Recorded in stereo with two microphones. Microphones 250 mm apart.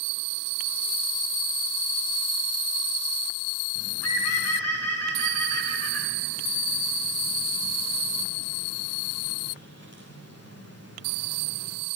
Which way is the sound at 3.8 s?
80° left.